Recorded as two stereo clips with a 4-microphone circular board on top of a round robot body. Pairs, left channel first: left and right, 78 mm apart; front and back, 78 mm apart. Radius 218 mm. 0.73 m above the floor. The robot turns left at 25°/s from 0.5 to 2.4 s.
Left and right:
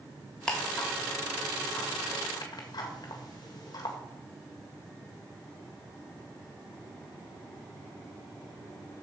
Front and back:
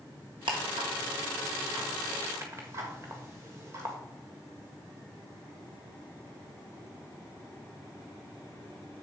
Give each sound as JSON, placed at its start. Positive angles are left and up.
{"t": 0.5, "sound": "ticking", "azimuth_deg": 170, "distance_m": 1.5}